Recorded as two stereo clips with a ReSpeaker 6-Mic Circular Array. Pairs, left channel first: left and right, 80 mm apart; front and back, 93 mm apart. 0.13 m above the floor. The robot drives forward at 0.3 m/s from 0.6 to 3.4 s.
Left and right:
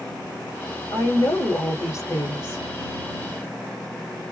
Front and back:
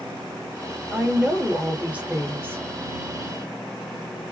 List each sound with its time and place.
0.9 s a woman speaking: 95° left, 1.4 m; by 2.6 s 120° left, 1.6 m